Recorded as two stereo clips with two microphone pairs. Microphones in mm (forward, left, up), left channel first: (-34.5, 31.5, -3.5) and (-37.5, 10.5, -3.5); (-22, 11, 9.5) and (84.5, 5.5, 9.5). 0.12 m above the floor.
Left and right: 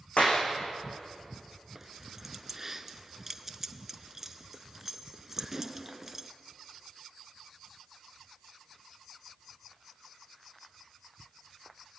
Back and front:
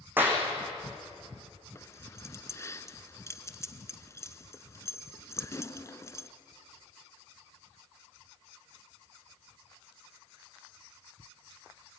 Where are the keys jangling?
155° right, 0.8 m.